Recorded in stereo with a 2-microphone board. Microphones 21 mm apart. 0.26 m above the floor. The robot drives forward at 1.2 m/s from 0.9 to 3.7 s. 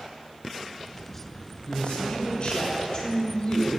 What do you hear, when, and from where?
1.7 s a man speaking: 50° left (ahead or behind), 3 m; by 3.8 s 30° left (ahead or behind), 5 m